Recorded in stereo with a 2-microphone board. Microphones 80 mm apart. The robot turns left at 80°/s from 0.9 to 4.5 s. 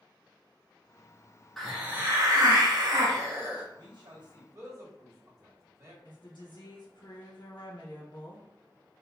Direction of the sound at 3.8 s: 65° right (ahead or behind).